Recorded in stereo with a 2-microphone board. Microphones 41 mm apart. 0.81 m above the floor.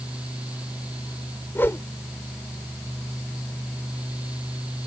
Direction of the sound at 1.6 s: 70° left (ahead or behind).